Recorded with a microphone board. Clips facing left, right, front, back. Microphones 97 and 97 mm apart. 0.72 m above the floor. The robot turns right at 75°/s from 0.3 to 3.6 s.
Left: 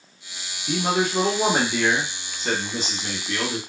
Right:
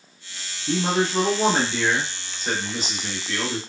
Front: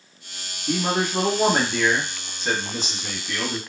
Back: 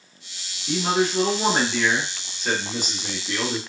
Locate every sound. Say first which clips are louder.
0.7 s a man speaking: even, back 1 dB; 55° right, 1.7 m; by 3.6 s 165° left, 1.7 m